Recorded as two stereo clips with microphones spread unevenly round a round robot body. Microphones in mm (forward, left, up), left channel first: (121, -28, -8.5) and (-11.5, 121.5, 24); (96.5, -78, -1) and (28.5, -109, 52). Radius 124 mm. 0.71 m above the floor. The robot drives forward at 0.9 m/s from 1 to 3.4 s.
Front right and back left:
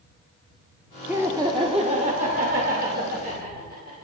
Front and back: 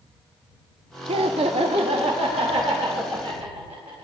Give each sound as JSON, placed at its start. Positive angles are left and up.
{"t": 1.1, "sound": "laughter", "azimuth_deg": -140, "distance_m": 0.9}